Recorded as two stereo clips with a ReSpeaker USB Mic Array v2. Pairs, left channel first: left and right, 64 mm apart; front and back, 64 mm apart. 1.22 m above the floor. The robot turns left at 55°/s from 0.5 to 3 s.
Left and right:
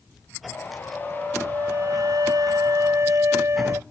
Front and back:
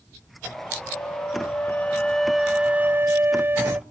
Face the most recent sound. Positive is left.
turn(degrees=-130)